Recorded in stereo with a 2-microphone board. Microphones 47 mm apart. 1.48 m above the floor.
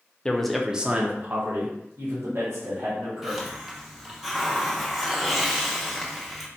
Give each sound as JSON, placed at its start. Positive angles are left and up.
{"t": 0.2, "sound": "a man speaking", "side_deg": 20, "distance_m": 0.5}
{"t": 3.2, "sound": "a hiss", "side_deg": -5, "distance_m": 0.6}